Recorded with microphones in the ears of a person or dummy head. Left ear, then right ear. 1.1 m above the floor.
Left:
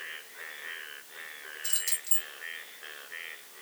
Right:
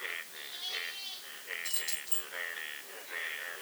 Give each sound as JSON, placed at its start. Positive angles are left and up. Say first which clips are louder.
{"t": 1.6, "sound": "keys jangling", "louder": "left 3 dB", "side_deg": 65, "distance_m": 1.5}